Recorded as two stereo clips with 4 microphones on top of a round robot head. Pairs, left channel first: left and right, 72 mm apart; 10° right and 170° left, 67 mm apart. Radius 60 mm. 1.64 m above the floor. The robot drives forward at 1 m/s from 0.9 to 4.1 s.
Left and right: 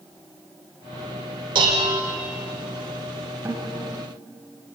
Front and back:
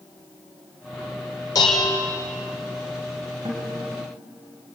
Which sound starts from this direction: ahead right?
Dishes clattering, at 1.6 s.